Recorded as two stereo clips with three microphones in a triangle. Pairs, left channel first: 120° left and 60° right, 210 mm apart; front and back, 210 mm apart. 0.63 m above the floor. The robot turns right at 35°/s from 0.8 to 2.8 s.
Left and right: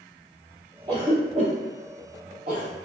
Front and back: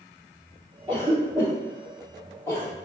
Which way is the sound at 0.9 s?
125° right.